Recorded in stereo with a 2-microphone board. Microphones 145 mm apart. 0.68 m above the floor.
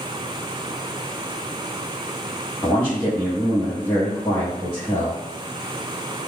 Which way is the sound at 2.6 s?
15° left (ahead or behind).